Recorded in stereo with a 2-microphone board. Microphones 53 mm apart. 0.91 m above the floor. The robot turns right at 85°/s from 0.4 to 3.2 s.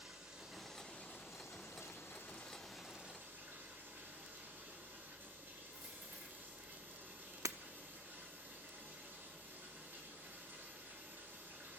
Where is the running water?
15° right, 3.5 m; by 11.8 s 140° right, 3.5 m.